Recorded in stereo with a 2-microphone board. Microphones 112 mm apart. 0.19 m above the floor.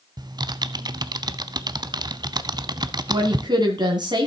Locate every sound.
0.2 s typing on a keyboard: 40° right (ahead or behind), 0.5 m
3.1 s a woman speaking: 40° right (ahead or behind), 1.8 m